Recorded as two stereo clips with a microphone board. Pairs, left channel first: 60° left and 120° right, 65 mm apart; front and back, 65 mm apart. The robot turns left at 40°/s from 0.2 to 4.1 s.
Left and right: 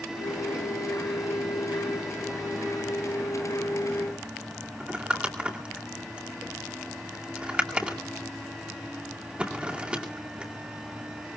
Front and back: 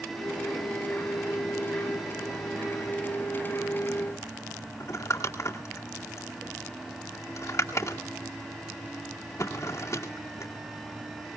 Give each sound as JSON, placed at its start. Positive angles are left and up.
{"t": 4.8, "sound": "crumpling", "azimuth_deg": -45, "distance_m": 2.0}